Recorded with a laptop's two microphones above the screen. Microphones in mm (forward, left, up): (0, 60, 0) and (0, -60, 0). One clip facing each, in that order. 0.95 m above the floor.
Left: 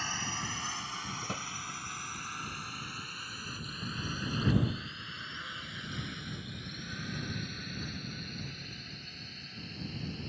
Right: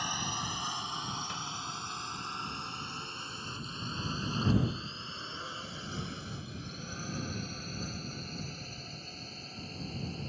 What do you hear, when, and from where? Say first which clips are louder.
0.0 s a drone: right 2 dB; 15° right (ahead or behind); by 10.3 s 35° right (ahead or behind)
1.2 s a drawer: left 1 dB; 45° left (ahead or behind)